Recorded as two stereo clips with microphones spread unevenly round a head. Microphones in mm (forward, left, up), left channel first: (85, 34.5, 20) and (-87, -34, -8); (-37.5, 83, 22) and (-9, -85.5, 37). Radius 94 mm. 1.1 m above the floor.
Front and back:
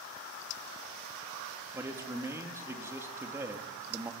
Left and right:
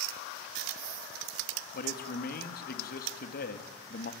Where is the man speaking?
125° left, 2.5 m.